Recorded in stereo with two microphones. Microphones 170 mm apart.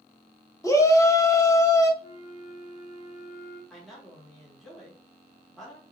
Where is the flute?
50° left (ahead or behind), 1.3 m.